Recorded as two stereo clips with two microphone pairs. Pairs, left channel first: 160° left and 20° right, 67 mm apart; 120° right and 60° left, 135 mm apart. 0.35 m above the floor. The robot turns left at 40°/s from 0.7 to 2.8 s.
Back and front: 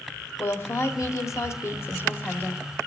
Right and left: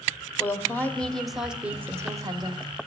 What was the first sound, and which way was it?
A woman speaking, 175° left.